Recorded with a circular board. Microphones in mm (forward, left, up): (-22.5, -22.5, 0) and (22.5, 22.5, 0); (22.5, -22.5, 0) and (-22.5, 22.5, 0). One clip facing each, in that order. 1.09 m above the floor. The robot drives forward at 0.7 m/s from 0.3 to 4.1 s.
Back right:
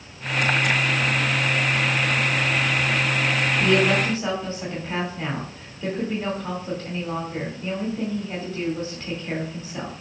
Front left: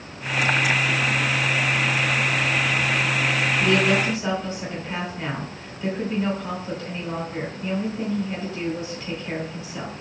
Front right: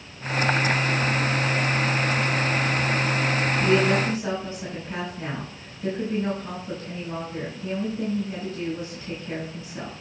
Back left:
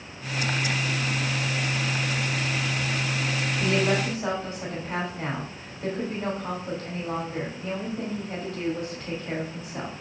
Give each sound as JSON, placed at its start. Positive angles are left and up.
{"t": 3.6, "sound": "a woman speaking", "azimuth_deg": 165, "distance_m": 2.5}